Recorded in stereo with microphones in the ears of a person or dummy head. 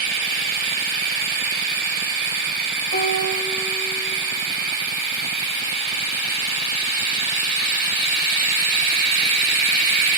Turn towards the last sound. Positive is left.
turn(degrees=40)  # may be behind; listen again after turning